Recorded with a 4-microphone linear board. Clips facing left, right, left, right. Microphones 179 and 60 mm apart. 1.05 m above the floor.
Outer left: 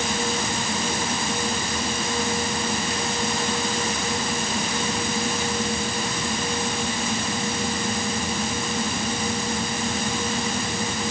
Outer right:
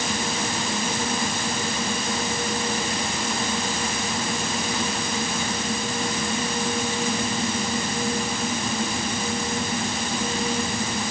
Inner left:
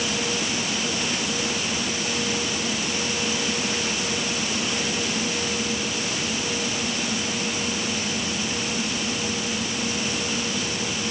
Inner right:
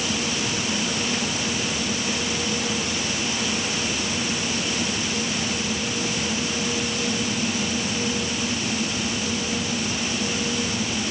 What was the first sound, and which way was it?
Only background noise.